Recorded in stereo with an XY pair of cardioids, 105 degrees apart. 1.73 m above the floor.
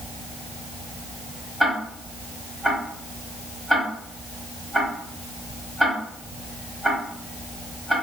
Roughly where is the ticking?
Ahead.